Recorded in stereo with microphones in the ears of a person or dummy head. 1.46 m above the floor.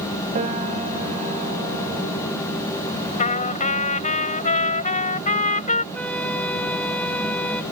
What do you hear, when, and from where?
0.3 s a piano: 35° right (ahead or behind)
3.2 s a trumpet: 35° left (ahead or behind)
5.9 s a flute: centre (ahead or behind)